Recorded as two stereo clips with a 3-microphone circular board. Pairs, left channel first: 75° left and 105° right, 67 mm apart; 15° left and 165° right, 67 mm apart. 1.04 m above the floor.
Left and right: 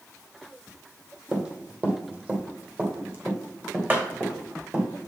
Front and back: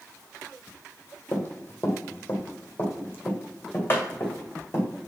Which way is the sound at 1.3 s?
35° right.